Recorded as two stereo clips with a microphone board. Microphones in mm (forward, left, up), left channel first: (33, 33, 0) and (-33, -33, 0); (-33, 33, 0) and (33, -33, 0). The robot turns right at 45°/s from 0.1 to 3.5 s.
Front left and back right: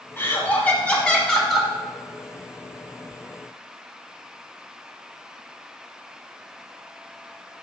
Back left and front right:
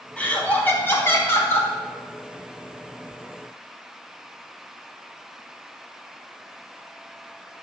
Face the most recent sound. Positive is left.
turn(degrees=-135)